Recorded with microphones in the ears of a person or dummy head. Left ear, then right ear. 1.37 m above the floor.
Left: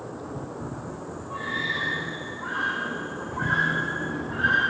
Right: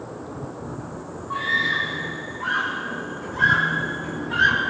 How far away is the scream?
About 3 m.